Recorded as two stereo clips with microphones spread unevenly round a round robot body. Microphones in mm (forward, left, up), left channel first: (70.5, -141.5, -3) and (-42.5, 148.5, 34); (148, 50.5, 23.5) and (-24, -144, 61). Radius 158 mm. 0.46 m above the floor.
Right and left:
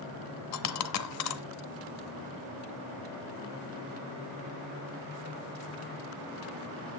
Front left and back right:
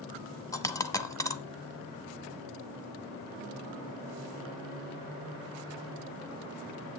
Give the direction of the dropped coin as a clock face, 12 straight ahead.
1 o'clock.